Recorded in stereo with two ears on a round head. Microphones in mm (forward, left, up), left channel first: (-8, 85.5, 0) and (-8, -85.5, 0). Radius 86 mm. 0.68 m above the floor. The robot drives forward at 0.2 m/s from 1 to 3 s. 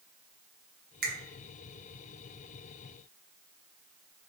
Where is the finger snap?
55° right (ahead or behind), 0.8 m.